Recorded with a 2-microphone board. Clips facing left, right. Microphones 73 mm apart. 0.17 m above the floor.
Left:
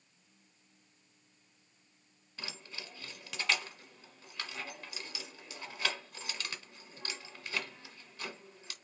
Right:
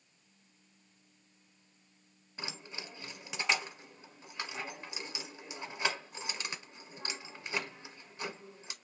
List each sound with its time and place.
2.4 s keys jangling: 20° right (ahead or behind), 1.1 m